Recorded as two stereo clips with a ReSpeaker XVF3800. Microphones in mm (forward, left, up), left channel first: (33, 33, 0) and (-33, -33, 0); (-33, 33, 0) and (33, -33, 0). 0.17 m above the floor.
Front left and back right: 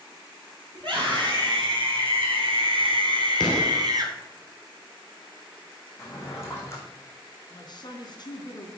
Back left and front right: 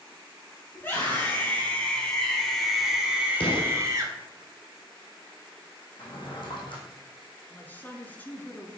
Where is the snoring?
No snoring in this recording.